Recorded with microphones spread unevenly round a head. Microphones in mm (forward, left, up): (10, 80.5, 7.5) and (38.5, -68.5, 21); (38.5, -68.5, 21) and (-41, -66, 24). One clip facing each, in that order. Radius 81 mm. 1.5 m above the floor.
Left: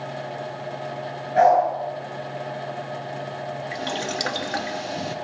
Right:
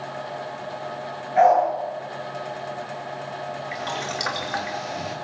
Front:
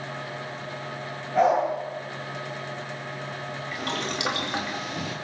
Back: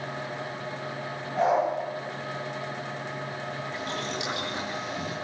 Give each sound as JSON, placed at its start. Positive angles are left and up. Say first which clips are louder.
{"t": 1.4, "sound": "a dog barking", "louder": "even, front 3 dB", "azimuth_deg": 55, "distance_m": 9.5}
{"t": 3.7, "sound": "boiling", "louder": "left 3 dB, front 4 dB", "azimuth_deg": 50, "distance_m": 3.0}